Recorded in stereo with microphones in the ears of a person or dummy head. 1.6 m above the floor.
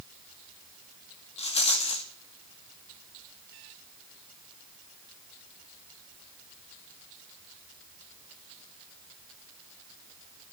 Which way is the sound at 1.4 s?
30° left (ahead or behind).